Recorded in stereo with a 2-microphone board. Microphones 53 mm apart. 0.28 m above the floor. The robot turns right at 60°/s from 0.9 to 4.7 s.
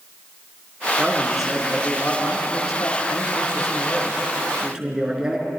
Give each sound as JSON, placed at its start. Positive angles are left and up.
{"t": 1.0, "sound": "a man speaking", "azimuth_deg": -30, "distance_m": 4.5}